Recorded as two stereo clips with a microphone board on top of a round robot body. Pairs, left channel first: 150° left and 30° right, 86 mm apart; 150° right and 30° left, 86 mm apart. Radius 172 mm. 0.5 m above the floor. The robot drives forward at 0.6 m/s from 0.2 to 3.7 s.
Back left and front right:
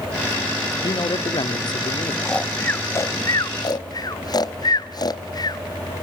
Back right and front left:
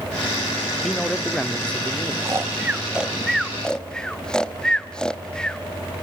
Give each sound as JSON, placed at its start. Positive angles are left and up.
{"t": 0.8, "sound": "a man speaking", "azimuth_deg": 120, "distance_m": 1.9}
{"t": 2.2, "sound": "snoring", "azimuth_deg": 75, "distance_m": 1.2}